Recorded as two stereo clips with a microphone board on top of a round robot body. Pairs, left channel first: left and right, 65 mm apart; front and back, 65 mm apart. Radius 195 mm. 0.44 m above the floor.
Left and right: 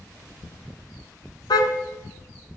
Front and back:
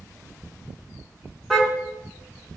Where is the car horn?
95° left, 2 m.